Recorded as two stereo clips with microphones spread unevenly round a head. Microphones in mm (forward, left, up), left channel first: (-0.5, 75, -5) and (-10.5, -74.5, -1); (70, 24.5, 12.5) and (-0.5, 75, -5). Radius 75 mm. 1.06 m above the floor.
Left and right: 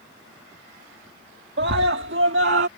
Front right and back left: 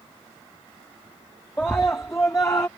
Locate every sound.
1.6 s a scream: 120° right; by 2.7 s 105° right